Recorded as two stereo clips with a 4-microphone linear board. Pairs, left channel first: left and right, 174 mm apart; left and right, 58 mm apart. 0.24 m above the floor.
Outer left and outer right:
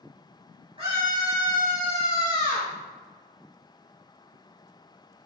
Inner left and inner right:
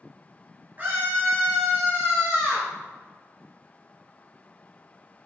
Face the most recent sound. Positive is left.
turn(degrees=-35)  # may be behind; listen again after turning